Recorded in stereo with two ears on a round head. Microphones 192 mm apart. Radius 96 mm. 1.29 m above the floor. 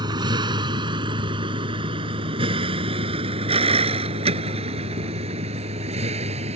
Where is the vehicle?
20° right (ahead or behind); by 6.6 s 30° right (ahead or behind).